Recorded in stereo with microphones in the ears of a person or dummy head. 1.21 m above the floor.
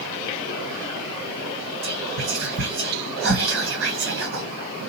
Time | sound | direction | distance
1.8 | whispering | 65° right (ahead or behind) | 2.0 m